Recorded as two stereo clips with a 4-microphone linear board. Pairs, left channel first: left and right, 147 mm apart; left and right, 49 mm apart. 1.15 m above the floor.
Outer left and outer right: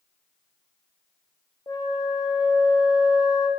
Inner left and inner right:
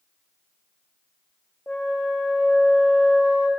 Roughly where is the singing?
No singing in this recording.